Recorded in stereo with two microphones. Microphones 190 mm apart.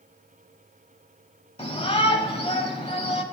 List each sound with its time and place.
1.6 s a shout: 30° left (ahead or behind), 1.1 m